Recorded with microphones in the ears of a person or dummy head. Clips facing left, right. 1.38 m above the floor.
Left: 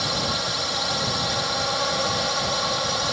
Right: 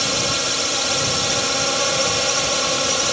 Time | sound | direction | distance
0.0 | a drone | 35° right (ahead or behind) | ?